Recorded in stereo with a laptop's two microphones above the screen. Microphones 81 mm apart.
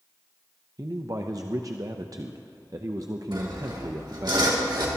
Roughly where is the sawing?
Right.